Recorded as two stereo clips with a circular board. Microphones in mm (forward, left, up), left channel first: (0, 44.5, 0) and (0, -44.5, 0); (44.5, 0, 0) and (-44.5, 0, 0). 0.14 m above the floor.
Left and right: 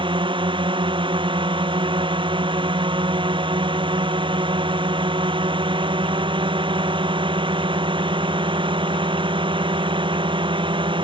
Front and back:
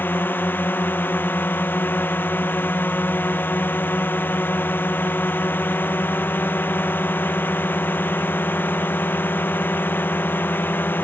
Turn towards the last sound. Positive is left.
turn(degrees=-70)